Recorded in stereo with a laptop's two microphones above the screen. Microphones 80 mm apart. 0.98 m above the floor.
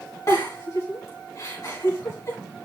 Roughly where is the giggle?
Left.